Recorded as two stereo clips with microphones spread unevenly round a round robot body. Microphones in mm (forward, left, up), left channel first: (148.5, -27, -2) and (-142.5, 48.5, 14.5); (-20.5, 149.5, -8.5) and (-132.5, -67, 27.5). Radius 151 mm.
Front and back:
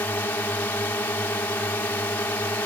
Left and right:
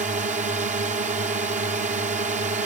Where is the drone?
85° right.